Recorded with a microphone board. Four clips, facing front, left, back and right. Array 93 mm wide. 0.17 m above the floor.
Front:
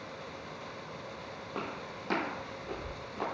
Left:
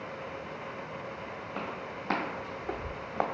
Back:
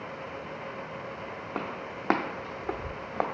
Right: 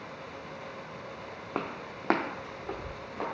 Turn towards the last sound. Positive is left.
turn(degrees=150)